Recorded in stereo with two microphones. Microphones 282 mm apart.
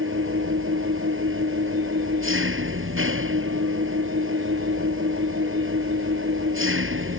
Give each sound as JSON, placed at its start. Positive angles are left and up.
{"t": 0.0, "sound": "an engine running", "side_deg": -45}